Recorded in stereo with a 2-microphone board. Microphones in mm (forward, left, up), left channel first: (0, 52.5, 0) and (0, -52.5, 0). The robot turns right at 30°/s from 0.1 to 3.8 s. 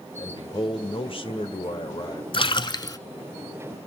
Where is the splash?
50° left (ahead or behind), 0.8 m; by 3.0 s 35° left (ahead or behind), 0.8 m.